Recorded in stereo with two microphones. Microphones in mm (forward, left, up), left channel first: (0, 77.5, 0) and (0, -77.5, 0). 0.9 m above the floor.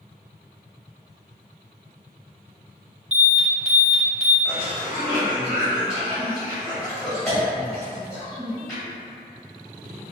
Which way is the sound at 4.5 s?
Centre (ahead or behind).